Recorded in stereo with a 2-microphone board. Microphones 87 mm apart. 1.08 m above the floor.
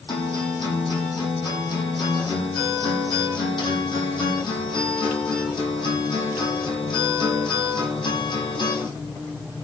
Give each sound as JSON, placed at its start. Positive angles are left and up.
{"t": 0.1, "sound": "a guitar", "side_deg": 60, "distance_m": 10.0}